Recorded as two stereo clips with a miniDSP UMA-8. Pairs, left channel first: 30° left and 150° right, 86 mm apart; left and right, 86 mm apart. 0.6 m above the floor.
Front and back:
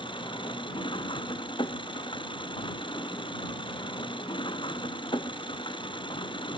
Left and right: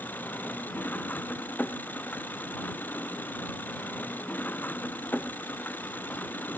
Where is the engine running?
25° left.